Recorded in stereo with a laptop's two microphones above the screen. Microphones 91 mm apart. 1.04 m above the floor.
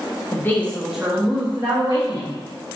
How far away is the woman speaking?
About 0.8 m.